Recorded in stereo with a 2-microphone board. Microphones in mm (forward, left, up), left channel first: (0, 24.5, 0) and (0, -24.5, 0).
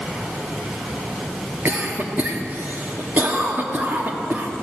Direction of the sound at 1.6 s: 40° right (ahead or behind).